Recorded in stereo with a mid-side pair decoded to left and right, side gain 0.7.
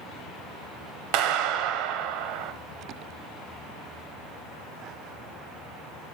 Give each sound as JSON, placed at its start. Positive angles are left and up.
{"t": 1.1, "sound": "a clap", "azimuth_deg": -70, "distance_m": 0.9}